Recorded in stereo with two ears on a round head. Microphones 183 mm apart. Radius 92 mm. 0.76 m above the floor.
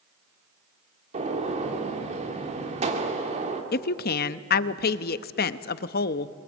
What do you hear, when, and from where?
1.1 s a gunshot: 35° right (ahead or behind), 2 m
3.7 s a woman speaking: 50° left (ahead or behind), 0.7 m